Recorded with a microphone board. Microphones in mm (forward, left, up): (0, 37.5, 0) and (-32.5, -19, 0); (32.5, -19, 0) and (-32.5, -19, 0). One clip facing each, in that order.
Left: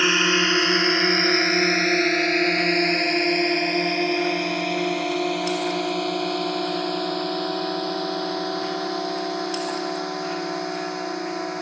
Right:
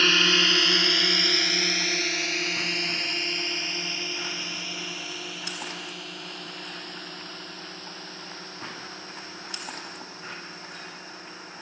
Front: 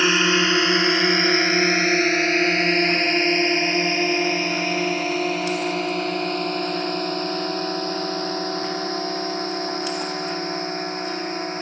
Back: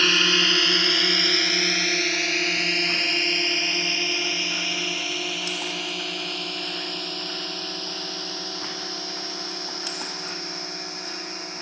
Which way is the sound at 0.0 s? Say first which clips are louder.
Left 3 dB, front 3 dB; 20° left.